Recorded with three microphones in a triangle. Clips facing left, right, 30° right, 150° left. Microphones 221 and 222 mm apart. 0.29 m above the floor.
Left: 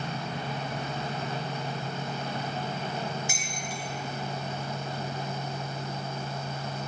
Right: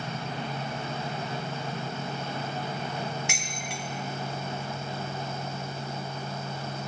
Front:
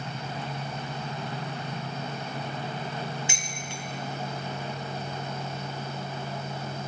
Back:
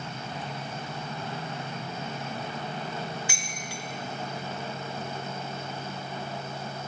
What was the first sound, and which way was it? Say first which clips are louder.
Dishes clattering: even, front 1 dB; 100° right.